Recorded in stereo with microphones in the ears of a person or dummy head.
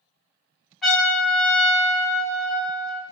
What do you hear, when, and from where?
0.8 s a trumpet: 5° left (ahead or behind), 1.3 m